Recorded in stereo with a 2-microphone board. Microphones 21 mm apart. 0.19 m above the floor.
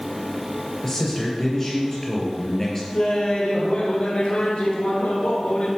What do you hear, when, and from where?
0.8 s a man speaking: 25° left (ahead or behind), 3 m
2.9 s laughter: 60° left (ahead or behind), 2.5 m